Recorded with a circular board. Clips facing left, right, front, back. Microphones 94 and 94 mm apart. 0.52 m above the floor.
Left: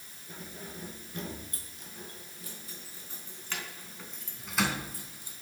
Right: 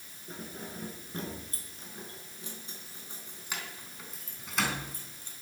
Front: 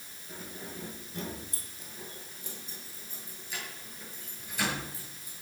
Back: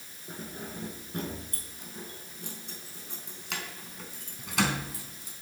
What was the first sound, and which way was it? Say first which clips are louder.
Keys jangling: right 2 dB, back 3 dB; 135° right.